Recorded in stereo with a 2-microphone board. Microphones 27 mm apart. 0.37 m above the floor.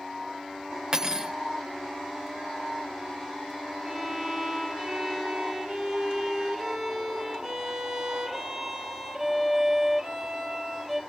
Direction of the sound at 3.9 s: 20° right (ahead or behind).